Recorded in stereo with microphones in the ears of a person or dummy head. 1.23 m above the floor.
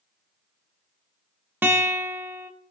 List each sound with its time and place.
1.6 s a guitar: 10° right (ahead or behind), 1.0 m